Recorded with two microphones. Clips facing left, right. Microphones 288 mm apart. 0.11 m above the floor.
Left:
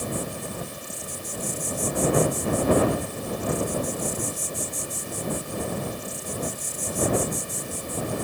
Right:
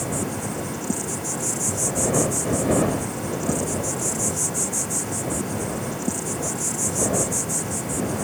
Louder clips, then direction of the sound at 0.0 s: Right 4 dB; 85° right.